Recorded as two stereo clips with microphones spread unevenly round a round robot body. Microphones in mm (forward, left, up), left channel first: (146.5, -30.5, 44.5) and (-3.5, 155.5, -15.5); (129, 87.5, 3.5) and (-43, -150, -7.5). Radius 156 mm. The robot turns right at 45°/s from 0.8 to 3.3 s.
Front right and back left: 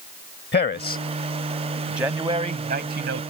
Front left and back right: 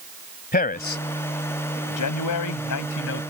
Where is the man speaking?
5° right; by 3.2 s 105° left.